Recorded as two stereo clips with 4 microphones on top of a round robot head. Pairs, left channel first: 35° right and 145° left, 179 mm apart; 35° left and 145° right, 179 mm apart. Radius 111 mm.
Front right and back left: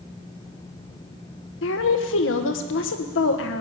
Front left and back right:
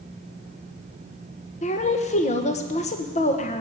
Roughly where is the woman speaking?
Ahead.